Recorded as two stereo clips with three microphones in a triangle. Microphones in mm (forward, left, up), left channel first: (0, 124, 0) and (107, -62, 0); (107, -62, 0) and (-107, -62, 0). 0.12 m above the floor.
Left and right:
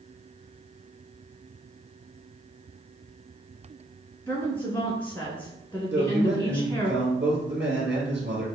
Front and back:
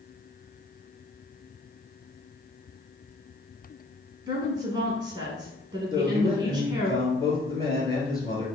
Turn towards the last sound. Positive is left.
turn(degrees=-70)